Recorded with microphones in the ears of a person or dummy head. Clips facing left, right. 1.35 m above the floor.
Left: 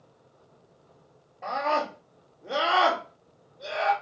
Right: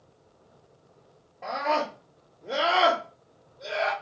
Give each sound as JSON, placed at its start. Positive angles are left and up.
{"t": 1.4, "sound": "a scream", "side_deg": 5, "distance_m": 2.0}